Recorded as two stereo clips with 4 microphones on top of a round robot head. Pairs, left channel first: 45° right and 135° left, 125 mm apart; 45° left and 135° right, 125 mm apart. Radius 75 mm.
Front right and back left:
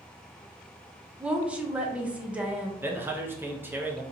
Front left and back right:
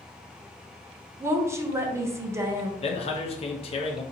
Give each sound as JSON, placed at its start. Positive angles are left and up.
{"t": 1.2, "sound": "a woman speaking", "azimuth_deg": -165, "distance_m": 0.7}
{"t": 2.8, "sound": "a man speaking", "azimuth_deg": 65, "distance_m": 0.8}